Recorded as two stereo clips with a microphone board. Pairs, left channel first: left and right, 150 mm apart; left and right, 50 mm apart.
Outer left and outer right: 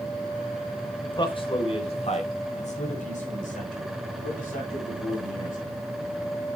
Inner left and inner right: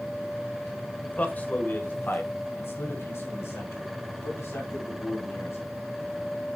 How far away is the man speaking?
About 1.5 m.